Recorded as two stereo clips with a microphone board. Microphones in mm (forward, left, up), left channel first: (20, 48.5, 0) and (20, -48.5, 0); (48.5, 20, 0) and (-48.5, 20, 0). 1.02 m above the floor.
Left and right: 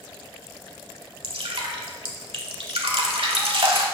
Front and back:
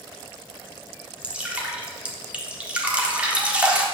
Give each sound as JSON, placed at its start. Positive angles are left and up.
{"t": 1.2, "sound": "dripping", "azimuth_deg": -105, "distance_m": 1.7}